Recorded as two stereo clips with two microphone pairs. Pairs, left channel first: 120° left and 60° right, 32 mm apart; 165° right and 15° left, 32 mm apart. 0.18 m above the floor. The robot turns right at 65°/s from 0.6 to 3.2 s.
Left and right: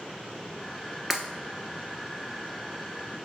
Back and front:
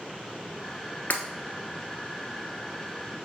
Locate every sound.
1.1 s breaking glass: 140° right, 1.1 m; by 1.2 s 130° right, 1.1 m